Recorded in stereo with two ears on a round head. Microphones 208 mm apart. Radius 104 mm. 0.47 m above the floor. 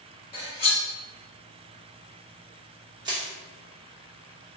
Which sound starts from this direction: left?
Cutlery clinking, at 0.3 s.